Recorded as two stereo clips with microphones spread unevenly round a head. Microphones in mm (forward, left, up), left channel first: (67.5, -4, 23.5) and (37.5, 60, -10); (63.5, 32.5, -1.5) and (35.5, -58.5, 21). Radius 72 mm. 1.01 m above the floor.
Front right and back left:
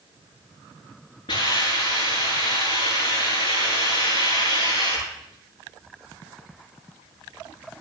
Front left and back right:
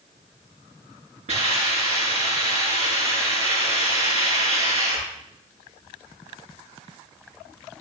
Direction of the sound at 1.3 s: 100° right.